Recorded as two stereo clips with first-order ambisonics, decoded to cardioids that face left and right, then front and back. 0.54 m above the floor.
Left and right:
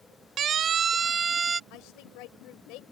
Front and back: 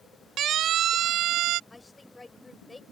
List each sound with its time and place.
0.4 s a siren: 135° right; by 1.6 s 160° right
1.7 s a woman speaking: 80° left